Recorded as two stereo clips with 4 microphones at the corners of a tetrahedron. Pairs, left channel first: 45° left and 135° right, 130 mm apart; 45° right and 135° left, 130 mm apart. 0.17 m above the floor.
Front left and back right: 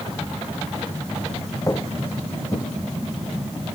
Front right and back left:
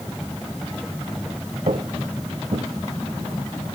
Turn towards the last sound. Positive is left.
turn(degrees=100)